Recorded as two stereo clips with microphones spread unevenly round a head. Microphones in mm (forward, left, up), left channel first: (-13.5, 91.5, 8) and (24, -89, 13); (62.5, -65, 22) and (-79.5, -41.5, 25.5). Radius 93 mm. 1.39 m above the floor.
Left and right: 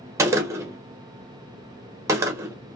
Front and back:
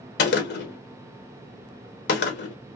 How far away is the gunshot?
About 1.0 m.